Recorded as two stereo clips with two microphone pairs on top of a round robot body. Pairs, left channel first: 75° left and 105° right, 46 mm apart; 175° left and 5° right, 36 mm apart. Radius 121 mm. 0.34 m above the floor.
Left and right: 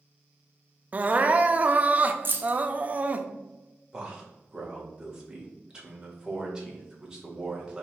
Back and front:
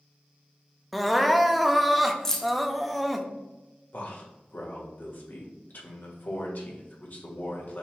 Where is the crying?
90° right, 0.5 m.